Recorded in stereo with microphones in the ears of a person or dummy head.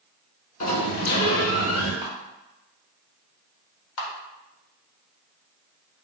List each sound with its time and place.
0.6 s a sliding door: 35° left (ahead or behind), 1.3 m
2.0 s a camera shutter: 25° right (ahead or behind), 1.3 m
4.0 s a camera shutter: 75° left (ahead or behind), 1.1 m